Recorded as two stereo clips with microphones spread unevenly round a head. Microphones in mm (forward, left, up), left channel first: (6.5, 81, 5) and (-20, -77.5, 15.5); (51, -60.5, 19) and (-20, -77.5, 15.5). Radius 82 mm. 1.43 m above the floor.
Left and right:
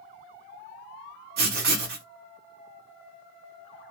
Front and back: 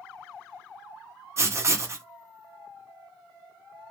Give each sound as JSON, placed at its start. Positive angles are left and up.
{"t": 1.4, "sound": "writing", "azimuth_deg": -120, "distance_m": 0.8}